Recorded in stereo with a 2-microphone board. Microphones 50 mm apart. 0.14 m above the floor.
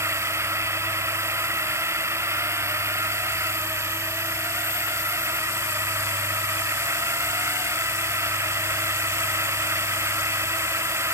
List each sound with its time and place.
0.0 s a drone: 60° right (ahead or behind)